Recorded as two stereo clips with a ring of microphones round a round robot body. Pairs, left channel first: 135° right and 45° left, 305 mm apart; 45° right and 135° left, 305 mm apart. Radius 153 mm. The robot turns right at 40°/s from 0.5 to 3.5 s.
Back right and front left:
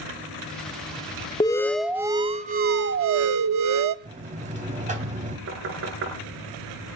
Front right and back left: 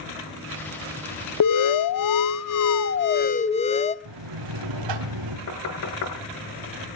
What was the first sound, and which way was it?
An alarm, 60° right.